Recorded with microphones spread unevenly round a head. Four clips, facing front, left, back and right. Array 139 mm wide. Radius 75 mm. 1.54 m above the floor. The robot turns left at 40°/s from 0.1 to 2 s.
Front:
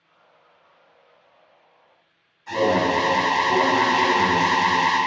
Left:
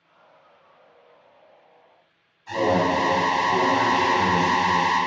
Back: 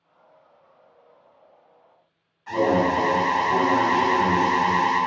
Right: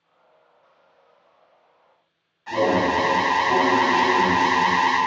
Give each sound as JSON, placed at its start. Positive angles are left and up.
{"t": 2.5, "sound": "an alarm", "azimuth_deg": -90, "distance_m": 1.6}